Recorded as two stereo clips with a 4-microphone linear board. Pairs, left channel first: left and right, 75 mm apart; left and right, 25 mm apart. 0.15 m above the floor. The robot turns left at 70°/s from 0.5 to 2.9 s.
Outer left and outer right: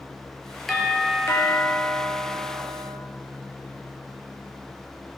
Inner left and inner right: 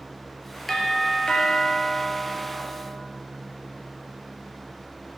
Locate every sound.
0.7 s a doorbell: straight behind, 4 m; by 3.0 s 25° left, 4 m